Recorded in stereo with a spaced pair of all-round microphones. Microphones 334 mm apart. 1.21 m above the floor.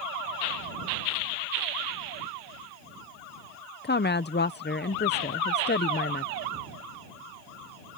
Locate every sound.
3.8 s a woman speaking: 30° left (ahead or behind)